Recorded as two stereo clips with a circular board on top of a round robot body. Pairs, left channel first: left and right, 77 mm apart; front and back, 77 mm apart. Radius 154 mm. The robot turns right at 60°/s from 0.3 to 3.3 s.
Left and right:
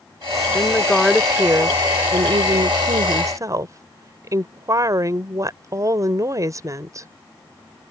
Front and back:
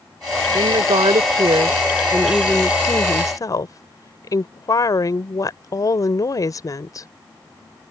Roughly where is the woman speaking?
Behind left.